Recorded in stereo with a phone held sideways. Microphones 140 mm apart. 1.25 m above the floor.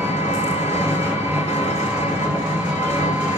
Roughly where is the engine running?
Centre.